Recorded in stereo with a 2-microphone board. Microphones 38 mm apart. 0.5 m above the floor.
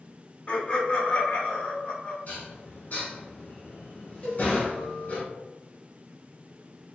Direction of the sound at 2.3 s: 45° left (ahead or behind).